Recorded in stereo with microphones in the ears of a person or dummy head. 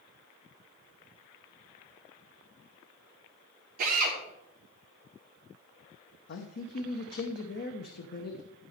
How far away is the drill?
About 3 m.